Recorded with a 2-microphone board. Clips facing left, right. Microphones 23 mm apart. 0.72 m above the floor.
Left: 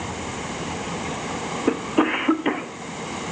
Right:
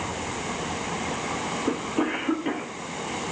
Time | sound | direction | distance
1.7 | a cough | 35° left (ahead or behind) | 1.0 m